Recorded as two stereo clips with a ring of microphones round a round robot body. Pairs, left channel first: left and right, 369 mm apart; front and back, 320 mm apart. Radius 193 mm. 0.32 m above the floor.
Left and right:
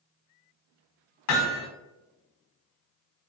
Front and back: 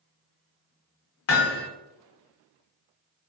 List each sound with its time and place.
1.3 s hammering: 45° left, 0.8 m